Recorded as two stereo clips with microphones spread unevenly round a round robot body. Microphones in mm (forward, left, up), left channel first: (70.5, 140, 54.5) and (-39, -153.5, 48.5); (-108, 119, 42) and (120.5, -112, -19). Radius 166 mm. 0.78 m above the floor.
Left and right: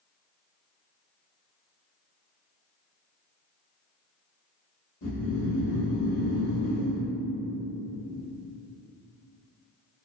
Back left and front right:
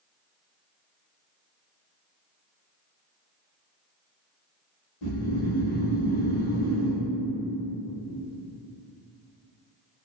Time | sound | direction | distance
5.0 | snoring | 125° left | 1.1 m